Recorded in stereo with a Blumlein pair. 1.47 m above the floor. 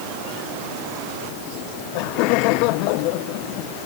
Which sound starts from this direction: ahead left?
Laughter, at 1.6 s.